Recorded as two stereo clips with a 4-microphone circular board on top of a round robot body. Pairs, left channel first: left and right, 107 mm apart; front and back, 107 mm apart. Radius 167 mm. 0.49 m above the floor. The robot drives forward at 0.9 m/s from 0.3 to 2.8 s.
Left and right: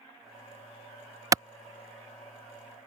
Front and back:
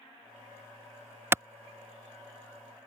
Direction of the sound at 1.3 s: 125° right.